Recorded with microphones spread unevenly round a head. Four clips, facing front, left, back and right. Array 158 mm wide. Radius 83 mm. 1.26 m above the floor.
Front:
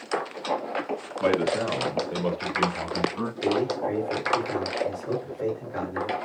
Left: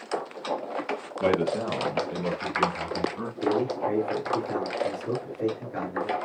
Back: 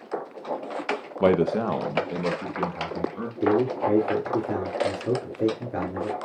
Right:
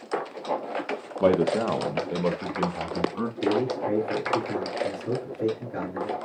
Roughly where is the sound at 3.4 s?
Behind.